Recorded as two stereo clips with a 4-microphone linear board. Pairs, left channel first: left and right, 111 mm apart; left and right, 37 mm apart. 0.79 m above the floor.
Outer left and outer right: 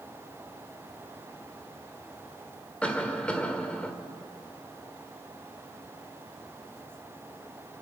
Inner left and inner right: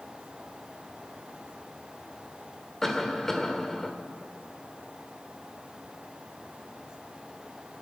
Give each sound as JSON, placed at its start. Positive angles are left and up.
{"t": 2.8, "sound": "a cough", "side_deg": 10, "distance_m": 2.0}